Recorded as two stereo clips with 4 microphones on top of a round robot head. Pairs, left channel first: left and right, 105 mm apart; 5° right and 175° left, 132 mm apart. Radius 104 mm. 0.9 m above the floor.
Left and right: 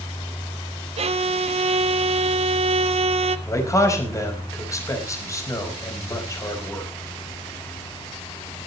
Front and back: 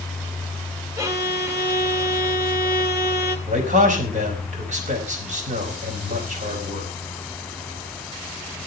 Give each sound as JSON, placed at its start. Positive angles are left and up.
{"t": 1.0, "sound": "a violin", "azimuth_deg": -115, "distance_m": 1.0}
{"t": 3.5, "sound": "a man speaking", "azimuth_deg": 150, "distance_m": 4.5}